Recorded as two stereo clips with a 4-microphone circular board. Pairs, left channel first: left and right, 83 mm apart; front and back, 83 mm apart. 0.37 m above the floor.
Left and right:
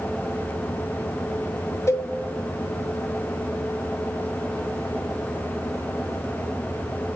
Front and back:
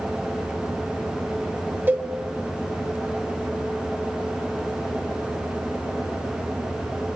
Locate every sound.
1.9 s a cowbell: 125° left, 0.7 m